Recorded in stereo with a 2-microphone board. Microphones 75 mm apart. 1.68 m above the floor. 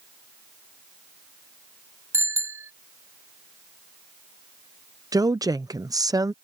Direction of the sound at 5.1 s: 60° right (ahead or behind).